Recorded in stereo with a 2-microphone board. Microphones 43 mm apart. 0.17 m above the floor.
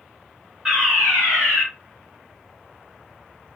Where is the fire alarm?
10° right (ahead or behind), 3.5 m.